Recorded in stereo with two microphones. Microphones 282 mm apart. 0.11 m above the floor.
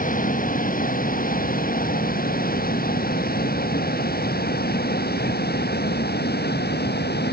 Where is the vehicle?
30° left (ahead or behind); by 7.3 s 35° left (ahead or behind).